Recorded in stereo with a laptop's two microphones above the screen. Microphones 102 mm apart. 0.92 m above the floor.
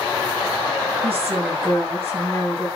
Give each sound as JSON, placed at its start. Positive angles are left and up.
{"t": 1.0, "sound": "a woman speaking", "side_deg": -70, "distance_m": 7.5}